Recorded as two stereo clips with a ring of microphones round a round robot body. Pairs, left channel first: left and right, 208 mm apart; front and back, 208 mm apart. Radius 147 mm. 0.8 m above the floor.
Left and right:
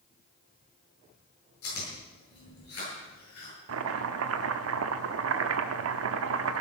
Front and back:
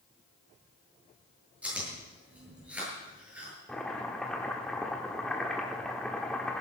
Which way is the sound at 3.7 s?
90° right.